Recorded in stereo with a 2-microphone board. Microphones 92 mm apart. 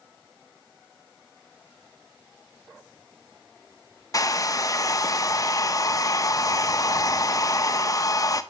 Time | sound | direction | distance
4.1 | a hair dryer | 40° left (ahead or behind) | 0.6 m